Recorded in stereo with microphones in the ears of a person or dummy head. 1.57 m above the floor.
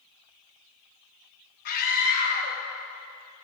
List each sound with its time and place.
1.6 s a scream: 50° left (ahead or behind), 1.2 m